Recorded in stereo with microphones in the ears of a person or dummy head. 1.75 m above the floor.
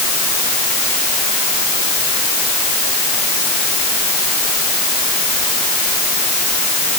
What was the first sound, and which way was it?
Only background noise.